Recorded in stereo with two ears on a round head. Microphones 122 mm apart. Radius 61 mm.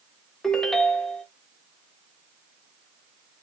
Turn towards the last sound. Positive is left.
turn(degrees=5)  # may be behind; listen again after turning